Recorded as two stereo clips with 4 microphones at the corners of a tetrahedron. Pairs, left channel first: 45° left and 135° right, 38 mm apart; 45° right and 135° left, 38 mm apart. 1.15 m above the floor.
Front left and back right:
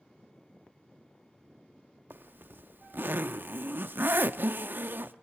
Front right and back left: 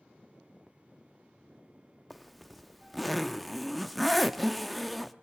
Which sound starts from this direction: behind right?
A zipper, at 2.1 s.